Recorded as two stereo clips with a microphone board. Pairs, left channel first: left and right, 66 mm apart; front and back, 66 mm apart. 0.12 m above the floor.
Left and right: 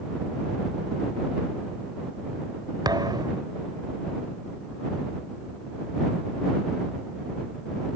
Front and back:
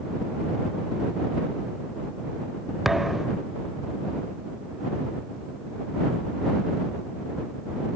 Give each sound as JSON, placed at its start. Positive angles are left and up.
{"t": 2.9, "sound": "a thud", "azimuth_deg": -95}